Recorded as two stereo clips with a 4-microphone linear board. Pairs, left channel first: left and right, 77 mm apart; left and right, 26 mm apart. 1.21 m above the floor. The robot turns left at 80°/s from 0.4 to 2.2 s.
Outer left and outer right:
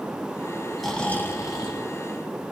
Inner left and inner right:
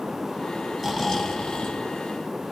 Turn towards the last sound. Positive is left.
turn(degrees=70)